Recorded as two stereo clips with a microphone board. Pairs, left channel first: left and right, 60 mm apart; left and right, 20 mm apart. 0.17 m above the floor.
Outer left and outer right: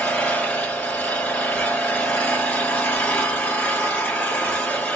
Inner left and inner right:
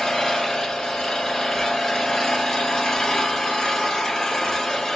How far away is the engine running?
About 1.1 m.